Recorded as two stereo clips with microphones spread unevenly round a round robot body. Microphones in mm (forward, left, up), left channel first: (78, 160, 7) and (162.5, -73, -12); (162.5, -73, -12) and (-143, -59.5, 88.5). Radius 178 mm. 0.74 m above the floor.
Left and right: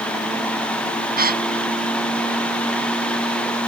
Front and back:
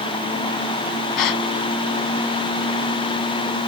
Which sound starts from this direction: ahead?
A gasp, at 1.2 s.